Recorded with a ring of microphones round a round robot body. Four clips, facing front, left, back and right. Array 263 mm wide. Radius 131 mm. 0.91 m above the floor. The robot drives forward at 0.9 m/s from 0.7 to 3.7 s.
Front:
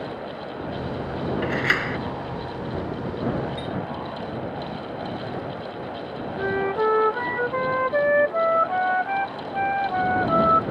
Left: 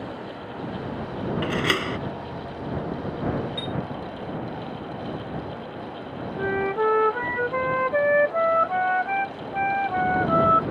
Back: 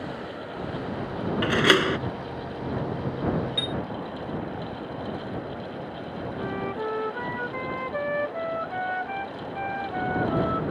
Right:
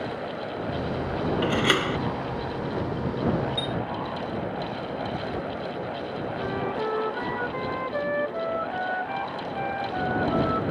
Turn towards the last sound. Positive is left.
turn(degrees=40)